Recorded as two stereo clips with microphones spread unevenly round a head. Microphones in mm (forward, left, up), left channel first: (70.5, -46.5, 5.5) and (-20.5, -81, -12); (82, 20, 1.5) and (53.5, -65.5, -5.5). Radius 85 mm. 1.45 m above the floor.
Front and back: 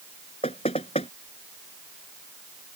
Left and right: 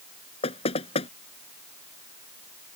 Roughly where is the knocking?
Left.